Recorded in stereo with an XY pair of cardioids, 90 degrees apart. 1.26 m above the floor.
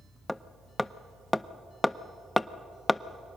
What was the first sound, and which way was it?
Hammering, 10° left.